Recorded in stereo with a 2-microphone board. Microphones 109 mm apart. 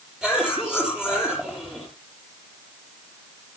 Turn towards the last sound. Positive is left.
turn(degrees=-5)  # may be behind; listen again after turning